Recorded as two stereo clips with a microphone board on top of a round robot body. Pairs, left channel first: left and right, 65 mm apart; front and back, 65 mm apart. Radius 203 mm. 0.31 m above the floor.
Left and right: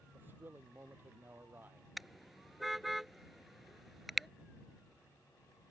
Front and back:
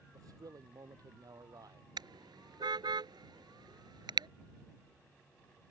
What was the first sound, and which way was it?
A man speaking, 150° right.